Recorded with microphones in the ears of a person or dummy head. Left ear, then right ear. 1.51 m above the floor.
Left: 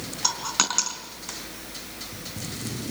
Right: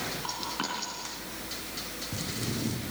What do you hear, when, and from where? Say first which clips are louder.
0.2 s a dropped coin: left 14 dB; 65° left (ahead or behind), 4 m